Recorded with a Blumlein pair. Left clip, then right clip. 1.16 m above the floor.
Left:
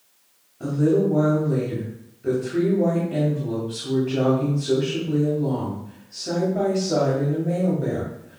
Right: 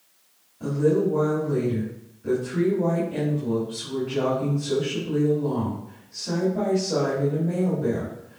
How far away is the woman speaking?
About 3.5 m.